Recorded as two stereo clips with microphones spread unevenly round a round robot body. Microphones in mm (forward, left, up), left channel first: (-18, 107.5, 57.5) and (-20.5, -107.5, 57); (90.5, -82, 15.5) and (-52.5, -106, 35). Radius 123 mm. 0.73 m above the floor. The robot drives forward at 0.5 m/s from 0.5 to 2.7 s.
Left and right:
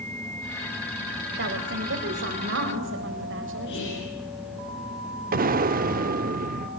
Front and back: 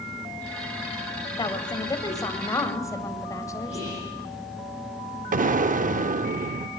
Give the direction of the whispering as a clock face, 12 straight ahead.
8 o'clock.